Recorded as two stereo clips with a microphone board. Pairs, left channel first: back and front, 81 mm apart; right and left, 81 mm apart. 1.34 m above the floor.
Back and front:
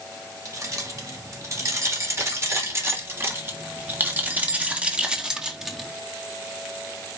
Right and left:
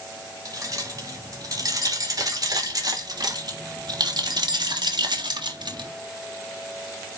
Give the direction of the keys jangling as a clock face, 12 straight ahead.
10 o'clock.